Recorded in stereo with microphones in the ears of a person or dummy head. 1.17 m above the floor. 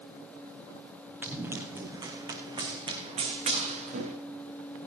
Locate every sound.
1.2 s running footsteps: 10° right (ahead or behind), 3.5 m; by 4.2 s 50° right (ahead or behind), 4 m